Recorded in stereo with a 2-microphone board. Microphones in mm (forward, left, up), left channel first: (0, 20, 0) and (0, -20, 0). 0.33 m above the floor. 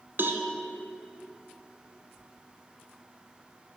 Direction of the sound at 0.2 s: 70° right (ahead or behind).